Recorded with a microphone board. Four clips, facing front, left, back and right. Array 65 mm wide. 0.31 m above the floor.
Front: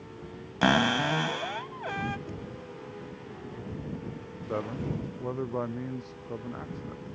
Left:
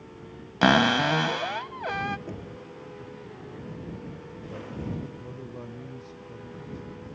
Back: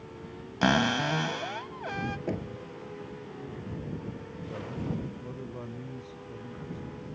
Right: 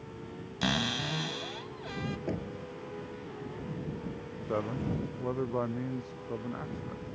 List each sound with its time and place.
0.6 s a cupboard door: 80° left
2.3 s knocking: 155° right
4.5 s a man speaking: 45° right